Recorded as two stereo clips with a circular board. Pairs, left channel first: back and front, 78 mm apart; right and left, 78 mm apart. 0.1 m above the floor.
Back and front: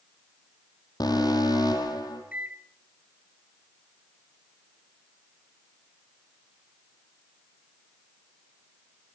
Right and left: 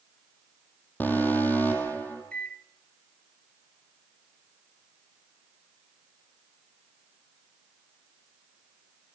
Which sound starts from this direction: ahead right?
A microwave, at 2.3 s.